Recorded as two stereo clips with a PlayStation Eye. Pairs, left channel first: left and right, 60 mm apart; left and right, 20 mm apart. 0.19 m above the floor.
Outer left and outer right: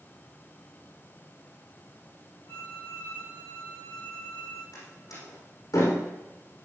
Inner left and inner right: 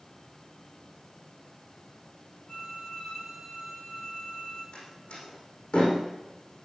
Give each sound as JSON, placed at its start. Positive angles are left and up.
{"t": 2.5, "sound": "a violin", "side_deg": 65, "distance_m": 8.0}
{"t": 4.7, "sound": "a door slam", "side_deg": 80, "distance_m": 7.0}